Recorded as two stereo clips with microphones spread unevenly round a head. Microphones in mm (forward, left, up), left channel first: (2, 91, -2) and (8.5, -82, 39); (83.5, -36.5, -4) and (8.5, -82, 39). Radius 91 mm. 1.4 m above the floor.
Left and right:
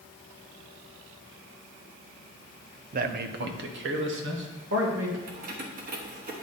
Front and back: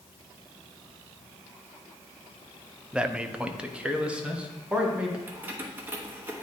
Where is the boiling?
I don't hear boiling.